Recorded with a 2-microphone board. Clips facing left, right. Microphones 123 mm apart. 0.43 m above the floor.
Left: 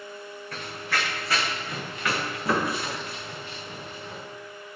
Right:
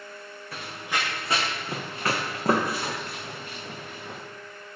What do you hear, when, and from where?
0.5 s running footsteps: 5° right (ahead or behind), 1.4 m; by 4.2 s 60° right (ahead or behind), 2.5 m